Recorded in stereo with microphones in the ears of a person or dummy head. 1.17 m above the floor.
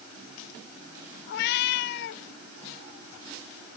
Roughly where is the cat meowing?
Left.